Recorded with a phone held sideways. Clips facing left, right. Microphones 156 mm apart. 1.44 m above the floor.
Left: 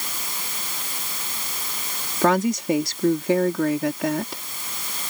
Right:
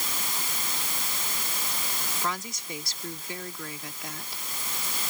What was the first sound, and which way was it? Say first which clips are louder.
A woman speaking: left 17 dB; 90° left.